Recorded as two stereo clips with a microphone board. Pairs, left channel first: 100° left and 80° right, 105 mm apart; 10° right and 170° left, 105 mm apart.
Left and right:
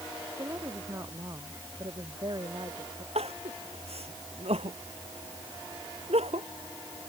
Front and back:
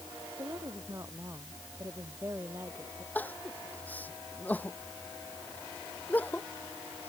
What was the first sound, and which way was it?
A woman speaking, 135° right.